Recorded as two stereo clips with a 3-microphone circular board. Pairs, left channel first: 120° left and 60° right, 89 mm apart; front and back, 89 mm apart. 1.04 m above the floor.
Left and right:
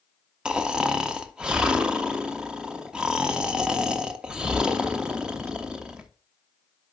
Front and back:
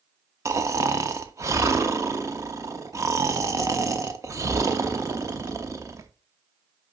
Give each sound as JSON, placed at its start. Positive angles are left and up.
{"t": 0.5, "sound": "snoring", "azimuth_deg": -135, "distance_m": 0.7}